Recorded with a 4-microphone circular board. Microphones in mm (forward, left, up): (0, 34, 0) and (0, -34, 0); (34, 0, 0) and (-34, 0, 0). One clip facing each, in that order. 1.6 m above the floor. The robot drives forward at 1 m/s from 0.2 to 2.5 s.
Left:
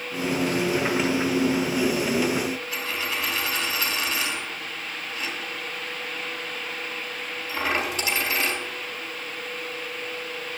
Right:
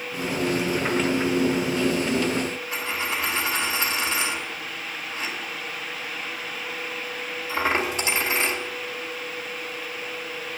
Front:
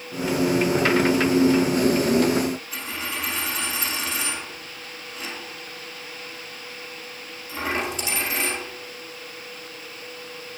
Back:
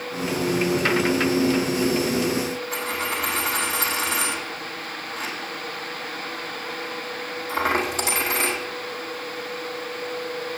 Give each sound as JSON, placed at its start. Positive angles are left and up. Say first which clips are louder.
{"t": 2.7, "sound": "a dropped coin", "louder": "right 1 dB, back 5 dB", "azimuth_deg": -155, "distance_m": 4.5}